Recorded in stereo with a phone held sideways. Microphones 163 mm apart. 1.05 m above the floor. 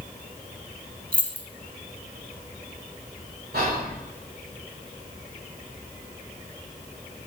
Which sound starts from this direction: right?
Whispering, at 3.5 s.